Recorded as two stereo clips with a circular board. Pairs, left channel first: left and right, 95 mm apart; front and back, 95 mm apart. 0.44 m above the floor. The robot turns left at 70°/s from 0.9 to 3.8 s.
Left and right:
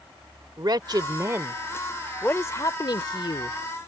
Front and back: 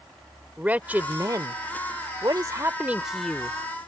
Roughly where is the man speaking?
Right.